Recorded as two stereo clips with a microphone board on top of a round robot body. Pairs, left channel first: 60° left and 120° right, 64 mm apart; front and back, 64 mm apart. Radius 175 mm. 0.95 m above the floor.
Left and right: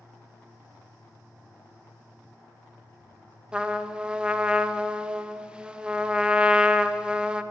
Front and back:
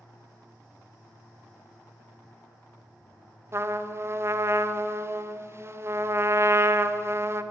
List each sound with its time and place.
3.5 s a trumpet: 170° left, 0.9 m